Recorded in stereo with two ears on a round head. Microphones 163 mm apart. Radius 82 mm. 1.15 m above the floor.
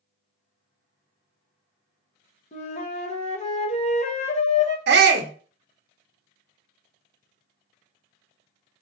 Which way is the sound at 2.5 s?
35° left (ahead or behind).